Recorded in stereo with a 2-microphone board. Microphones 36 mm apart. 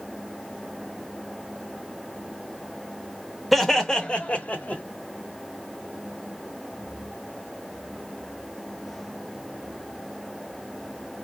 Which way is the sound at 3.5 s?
Centre (ahead or behind).